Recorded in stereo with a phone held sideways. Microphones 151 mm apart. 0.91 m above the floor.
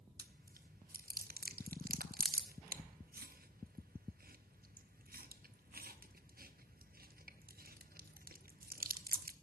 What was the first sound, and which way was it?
Chewing, 75° right (ahead or behind).